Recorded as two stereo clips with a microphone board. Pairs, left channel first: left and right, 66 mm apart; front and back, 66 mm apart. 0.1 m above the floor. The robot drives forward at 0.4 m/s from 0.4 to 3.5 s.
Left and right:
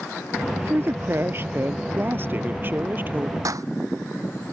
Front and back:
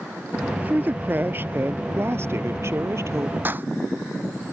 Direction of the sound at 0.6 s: 125° right.